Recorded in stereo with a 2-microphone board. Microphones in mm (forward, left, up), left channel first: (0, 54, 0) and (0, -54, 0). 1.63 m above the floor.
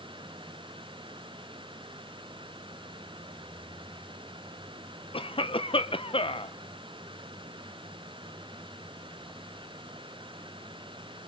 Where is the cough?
55° left (ahead or behind), 1.4 m.